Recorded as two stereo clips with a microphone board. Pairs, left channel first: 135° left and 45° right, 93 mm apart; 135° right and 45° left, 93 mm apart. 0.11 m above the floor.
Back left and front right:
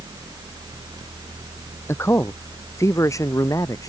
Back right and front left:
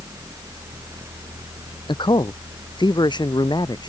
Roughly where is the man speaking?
Behind.